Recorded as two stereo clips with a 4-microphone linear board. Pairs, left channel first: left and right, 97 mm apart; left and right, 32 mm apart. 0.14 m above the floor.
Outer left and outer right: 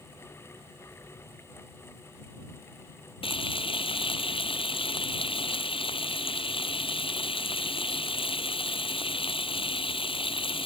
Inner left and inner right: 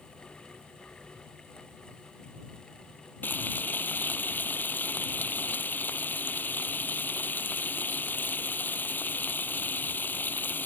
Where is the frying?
70° left (ahead or behind).